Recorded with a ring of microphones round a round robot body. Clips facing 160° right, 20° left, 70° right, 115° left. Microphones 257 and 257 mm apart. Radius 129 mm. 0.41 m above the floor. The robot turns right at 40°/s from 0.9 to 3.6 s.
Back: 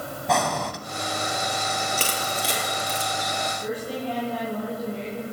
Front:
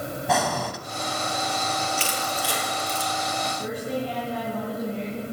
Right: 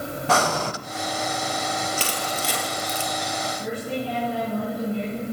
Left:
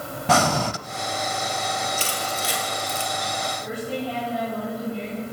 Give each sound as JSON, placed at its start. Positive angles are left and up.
{"t": 0.3, "sound": "breathing", "azimuth_deg": 110, "distance_m": 0.6}
{"t": 2.0, "sound": "crushing", "azimuth_deg": -105, "distance_m": 3.0}
{"t": 3.6, "sound": "a woman speaking", "azimuth_deg": -45, "distance_m": 5.5}